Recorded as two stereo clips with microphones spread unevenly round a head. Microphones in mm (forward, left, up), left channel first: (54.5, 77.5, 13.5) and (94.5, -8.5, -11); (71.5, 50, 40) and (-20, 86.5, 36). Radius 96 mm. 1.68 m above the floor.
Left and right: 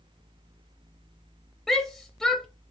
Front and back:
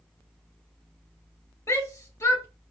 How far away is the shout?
About 0.7 m.